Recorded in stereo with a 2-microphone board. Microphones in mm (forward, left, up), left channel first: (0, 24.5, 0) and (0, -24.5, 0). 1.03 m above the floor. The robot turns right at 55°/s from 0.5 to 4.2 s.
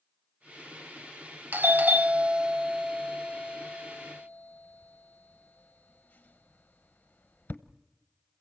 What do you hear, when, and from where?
1.5 s a doorbell: 40° right (ahead or behind), 0.8 m; by 7.6 s 30° left (ahead or behind), 0.8 m